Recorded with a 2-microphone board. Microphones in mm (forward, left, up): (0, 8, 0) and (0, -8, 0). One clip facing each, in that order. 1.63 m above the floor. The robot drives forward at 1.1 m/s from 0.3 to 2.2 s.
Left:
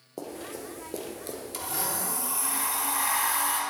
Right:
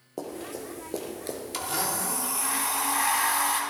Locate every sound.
0.2 s running footsteps: 5° right (ahead or behind), 2.5 m; by 1.4 s 15° right (ahead or behind), 1.6 m
1.5 s a blender: 30° right (ahead or behind), 1.3 m; by 3.6 s 20° right (ahead or behind), 1.7 m